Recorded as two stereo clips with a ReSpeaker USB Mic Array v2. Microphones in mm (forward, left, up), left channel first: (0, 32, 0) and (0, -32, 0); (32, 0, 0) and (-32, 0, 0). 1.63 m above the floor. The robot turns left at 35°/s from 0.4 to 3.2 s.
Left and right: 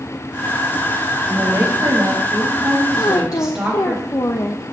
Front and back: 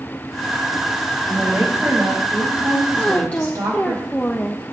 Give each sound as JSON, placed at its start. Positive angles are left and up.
{"t": 1.3, "sound": "a woman speaking", "azimuth_deg": -100, "distance_m": 4.0}
{"t": 3.0, "sound": "a woman speaking", "azimuth_deg": 75, "distance_m": 0.7}